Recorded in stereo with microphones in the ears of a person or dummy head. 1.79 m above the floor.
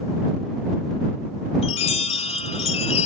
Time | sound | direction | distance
1.6 | a chime | 30° left (ahead or behind) | ?